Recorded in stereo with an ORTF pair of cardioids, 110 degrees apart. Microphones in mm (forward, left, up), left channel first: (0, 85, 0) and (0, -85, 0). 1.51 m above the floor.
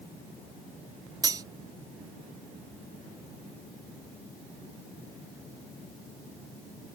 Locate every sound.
1.2 s cutlery clinking: 25° right